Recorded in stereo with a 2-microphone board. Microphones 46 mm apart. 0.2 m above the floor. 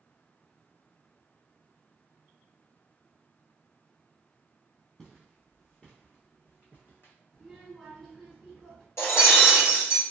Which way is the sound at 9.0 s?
70° left (ahead or behind).